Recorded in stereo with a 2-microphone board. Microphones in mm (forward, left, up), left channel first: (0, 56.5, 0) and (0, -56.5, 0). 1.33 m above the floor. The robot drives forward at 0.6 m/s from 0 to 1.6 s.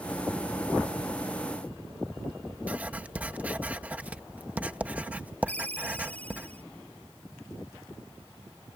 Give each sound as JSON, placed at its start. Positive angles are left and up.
{"t": 2.7, "sound": "writing", "side_deg": -15}
{"t": 5.5, "sound": "a ringtone", "side_deg": 15}